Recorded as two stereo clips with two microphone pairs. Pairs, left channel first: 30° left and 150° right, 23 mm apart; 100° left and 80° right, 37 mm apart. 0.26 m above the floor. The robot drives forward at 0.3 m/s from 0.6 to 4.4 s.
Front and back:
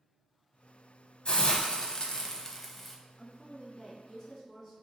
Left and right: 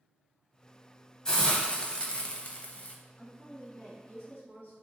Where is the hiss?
35° left, 0.6 m; by 3.0 s 115° left, 0.5 m.